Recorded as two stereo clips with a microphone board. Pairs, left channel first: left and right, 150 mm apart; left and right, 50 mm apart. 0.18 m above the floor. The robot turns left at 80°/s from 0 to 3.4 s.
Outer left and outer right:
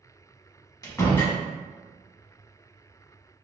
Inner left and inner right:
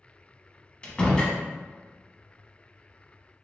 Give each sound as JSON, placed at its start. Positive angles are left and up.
{"t": 0.8, "sound": "a door slam", "side_deg": 25, "distance_m": 0.9}